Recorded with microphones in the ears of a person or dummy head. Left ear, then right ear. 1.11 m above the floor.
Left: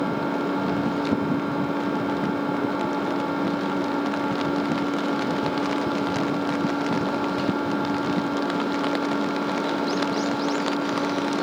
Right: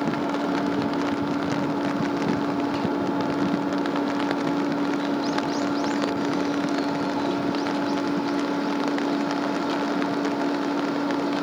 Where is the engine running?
60° left (ahead or behind), 5.5 m.